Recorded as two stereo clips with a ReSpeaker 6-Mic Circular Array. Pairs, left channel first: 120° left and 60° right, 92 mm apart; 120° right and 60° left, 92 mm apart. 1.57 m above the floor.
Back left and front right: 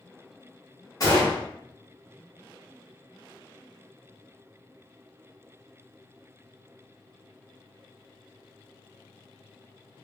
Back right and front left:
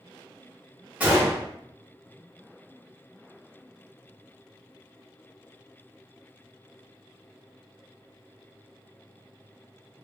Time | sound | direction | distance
1.0 | a gunshot | 125° left | 1.2 m